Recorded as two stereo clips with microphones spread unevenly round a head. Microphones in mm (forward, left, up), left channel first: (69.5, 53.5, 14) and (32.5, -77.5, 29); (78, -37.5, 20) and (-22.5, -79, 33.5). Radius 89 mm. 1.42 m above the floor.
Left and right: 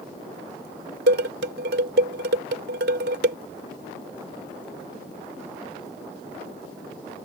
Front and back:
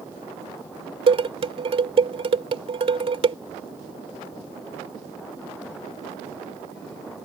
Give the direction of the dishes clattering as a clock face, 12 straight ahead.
4 o'clock.